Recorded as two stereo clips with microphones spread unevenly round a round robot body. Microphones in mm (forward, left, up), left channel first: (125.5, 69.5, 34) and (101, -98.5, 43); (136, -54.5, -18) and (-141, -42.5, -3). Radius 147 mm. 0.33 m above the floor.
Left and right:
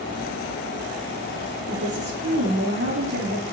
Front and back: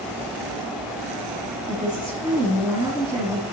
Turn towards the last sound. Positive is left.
turn(degrees=-110)